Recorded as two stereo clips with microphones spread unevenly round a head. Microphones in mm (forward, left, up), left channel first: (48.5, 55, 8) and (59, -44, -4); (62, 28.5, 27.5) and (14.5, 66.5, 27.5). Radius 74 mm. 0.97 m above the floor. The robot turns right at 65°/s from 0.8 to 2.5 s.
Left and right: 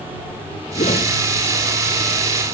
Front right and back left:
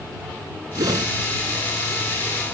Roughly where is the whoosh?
Behind left.